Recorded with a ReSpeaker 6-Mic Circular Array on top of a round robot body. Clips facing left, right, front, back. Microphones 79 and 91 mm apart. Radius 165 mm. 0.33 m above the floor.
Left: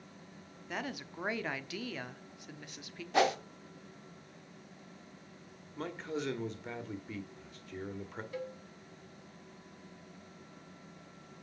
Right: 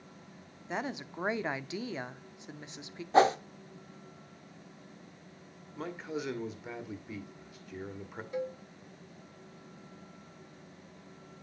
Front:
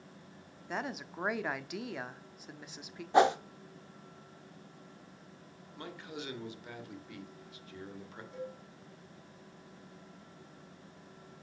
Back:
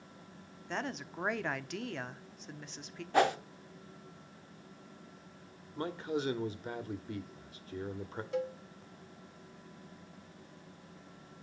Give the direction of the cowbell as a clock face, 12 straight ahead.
5 o'clock.